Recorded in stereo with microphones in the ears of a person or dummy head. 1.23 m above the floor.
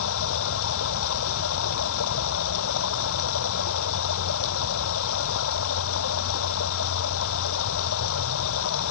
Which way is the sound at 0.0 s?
70° left (ahead or behind).